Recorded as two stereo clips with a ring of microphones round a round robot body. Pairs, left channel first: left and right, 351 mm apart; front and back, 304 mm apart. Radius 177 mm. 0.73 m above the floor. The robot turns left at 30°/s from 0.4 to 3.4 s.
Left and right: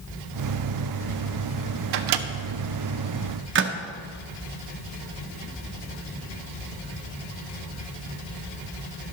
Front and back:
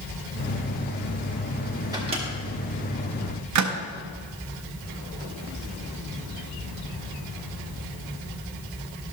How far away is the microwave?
About 0.6 m.